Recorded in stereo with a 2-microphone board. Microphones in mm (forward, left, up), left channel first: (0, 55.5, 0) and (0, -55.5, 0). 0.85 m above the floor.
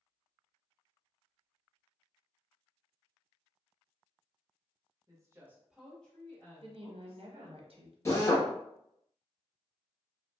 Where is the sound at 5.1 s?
30° right (ahead or behind), 1.0 m; by 7.6 s 55° left (ahead or behind), 1.3 m.